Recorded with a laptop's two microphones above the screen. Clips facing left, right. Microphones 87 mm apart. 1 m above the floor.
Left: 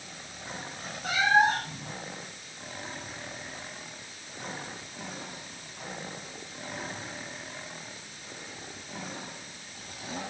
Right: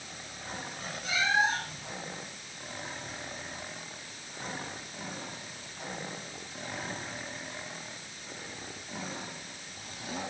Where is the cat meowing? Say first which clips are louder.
Left 5 dB; 55° left (ahead or behind), 1.4 m.